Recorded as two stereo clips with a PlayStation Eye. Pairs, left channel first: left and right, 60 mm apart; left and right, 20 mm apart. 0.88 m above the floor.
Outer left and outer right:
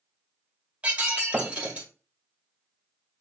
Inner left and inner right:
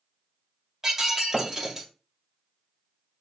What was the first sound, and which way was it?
Breaking glass, 20° right (ahead or behind).